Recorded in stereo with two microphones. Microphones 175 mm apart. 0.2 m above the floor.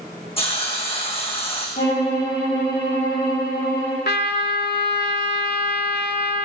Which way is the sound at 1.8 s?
60° left (ahead or behind).